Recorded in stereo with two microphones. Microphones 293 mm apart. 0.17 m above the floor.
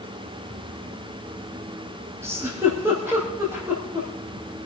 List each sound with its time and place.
2.2 s a giggle: 10° right (ahead or behind), 4.5 m